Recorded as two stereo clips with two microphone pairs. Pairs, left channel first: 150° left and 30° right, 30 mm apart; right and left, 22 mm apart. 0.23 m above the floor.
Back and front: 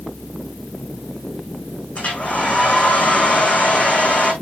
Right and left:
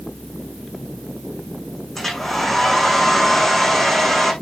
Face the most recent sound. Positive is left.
turn(degrees=-170)